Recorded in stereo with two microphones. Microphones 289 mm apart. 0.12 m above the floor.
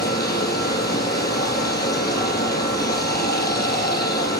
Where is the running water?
35° left (ahead or behind), 2.5 m.